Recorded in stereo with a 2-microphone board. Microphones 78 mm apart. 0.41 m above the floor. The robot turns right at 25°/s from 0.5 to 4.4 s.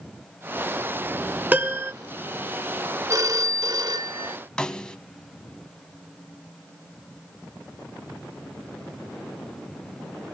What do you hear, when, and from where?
1.5 s a piano: 20° right (ahead or behind), 1.4 m; by 1.9 s 30° right (ahead or behind), 1.4 m
3.1 s a phone ringing: 125° right, 0.6 m; by 4.4 s 95° right, 0.6 m
4.6 s a snare drum: 10° left (ahead or behind), 0.8 m